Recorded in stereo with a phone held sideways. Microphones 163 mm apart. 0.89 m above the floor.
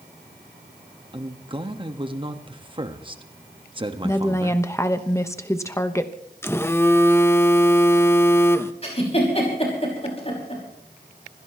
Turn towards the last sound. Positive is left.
turn(degrees=40)  # may be behind; listen again after turning